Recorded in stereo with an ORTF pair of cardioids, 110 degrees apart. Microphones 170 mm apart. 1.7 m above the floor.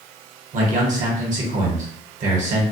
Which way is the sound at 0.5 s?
50° right.